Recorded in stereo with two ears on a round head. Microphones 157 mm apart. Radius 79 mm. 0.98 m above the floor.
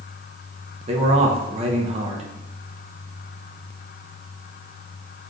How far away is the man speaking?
About 0.7 m.